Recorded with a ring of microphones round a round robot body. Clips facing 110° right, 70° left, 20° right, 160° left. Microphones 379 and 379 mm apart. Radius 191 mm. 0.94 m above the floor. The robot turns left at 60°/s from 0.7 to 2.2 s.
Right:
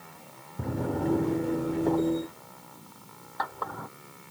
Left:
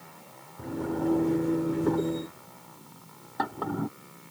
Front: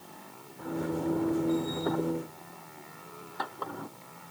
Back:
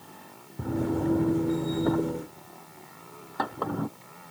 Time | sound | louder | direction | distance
0.6 | a drawer | even, back 4 dB | 150° right | ?